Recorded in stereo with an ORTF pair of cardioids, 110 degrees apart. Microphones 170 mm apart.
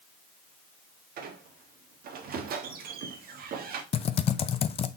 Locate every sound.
1.2 s a squeak: 65° right, 1.4 m
3.9 s typing on a keyboard: 35° left, 0.6 m